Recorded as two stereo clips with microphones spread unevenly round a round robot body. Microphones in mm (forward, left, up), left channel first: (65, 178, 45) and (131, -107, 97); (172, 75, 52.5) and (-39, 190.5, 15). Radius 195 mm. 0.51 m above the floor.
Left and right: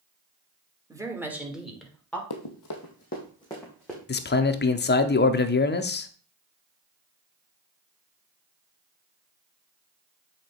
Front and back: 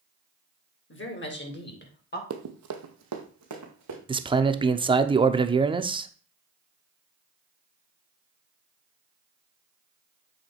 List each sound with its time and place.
0.9 s a woman speaking: 5° left, 1.9 m; by 2.2 s 25° left, 2.5 m
2.3 s running footsteps: 125° left, 1.2 m; by 4.0 s 165° right, 2.5 m
4.1 s a man speaking: 100° left, 0.8 m